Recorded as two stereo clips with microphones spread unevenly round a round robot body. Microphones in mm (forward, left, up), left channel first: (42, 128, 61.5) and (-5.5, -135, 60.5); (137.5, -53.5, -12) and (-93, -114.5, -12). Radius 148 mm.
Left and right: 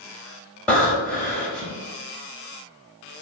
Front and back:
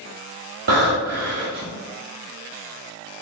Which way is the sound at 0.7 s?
165° left.